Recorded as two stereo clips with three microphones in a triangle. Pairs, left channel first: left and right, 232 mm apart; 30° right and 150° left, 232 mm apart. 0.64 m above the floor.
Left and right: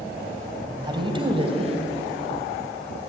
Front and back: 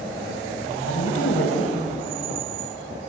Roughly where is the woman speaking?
Ahead.